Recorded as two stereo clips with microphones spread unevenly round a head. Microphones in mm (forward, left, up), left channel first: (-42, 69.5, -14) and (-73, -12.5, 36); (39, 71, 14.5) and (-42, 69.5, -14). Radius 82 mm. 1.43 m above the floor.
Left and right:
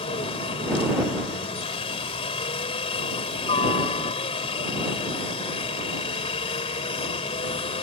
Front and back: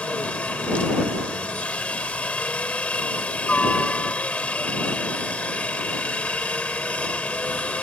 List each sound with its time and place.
0.0 s a helicopter: 75° left